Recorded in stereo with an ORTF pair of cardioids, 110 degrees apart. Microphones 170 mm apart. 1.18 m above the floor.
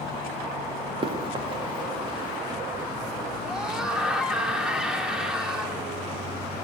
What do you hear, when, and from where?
1.0 s running footsteps: 30° right, 6 m; by 2.6 s 25° right, 7 m
3.4 s a scream: 5° right, 4 m